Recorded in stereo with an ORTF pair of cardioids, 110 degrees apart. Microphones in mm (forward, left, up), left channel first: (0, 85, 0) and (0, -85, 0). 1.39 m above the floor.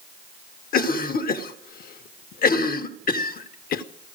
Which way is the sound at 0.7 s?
55° left.